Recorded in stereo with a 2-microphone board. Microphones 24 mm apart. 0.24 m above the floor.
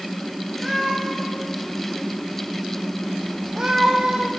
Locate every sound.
0.6 s a cat meowing: 5° left (ahead or behind), 3.5 m; by 4.3 s 50° right (ahead or behind), 1.1 m